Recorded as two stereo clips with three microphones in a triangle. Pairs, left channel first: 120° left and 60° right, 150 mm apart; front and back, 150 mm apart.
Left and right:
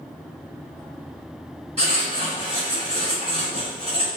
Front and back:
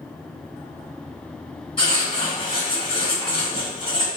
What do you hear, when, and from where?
1.8 s writing: 35° right, 1.4 m